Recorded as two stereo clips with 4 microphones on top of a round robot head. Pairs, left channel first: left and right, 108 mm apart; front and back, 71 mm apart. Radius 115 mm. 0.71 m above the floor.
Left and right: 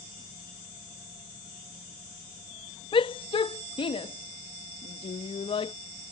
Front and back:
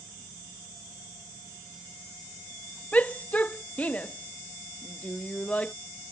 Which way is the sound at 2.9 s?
65° left.